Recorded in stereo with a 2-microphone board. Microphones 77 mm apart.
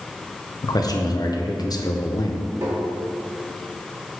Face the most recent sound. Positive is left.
turn(degrees=-40)  # may be behind; listen again after turning